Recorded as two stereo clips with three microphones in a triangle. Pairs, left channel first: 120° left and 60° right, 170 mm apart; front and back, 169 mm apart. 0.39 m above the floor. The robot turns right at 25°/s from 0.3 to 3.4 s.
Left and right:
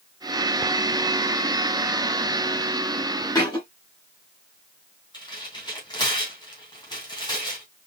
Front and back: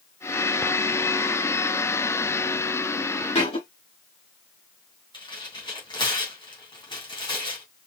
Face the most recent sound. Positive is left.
turn(degrees=60)